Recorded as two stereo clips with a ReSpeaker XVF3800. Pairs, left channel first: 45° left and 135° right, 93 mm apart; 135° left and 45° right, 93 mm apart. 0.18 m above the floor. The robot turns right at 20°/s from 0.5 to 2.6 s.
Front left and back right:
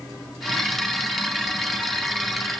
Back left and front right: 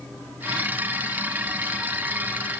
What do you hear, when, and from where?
Only background noise.